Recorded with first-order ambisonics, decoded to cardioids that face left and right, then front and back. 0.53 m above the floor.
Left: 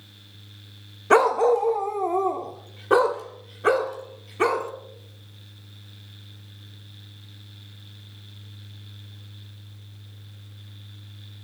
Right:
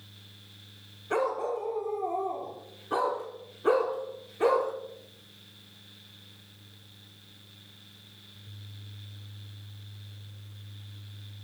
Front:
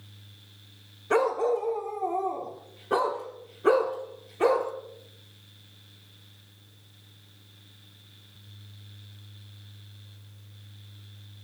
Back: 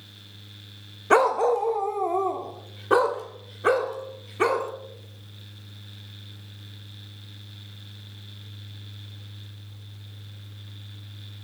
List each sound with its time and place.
1.1 s a dog barking: 125° left, 0.6 m; by 4.7 s 130° left, 2.5 m